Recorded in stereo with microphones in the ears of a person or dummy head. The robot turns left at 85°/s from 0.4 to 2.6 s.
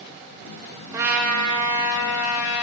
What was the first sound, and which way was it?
A trumpet, 165° right.